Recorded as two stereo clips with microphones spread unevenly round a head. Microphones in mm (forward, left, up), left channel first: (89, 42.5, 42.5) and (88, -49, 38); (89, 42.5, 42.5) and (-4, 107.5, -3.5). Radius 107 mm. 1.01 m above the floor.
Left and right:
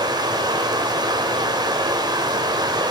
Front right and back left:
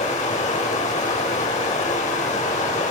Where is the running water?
50° right, 1.9 m.